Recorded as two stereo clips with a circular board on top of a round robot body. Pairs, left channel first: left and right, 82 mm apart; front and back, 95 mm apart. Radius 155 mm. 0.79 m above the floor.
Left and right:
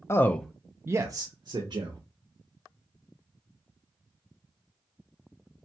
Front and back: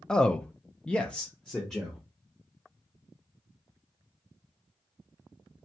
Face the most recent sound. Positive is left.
turn(degrees=-85)